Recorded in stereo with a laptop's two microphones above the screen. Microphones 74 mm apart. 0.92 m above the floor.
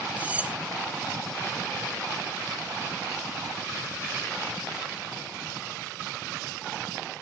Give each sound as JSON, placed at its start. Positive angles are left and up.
{"t": 0.2, "sound": "cutlery clinking", "side_deg": -20, "distance_m": 0.7}